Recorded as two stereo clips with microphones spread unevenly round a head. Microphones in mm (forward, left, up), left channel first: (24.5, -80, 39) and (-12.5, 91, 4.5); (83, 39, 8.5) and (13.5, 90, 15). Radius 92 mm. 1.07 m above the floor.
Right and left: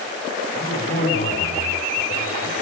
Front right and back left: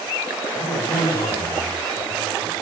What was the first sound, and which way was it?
A man speaking, 45° right.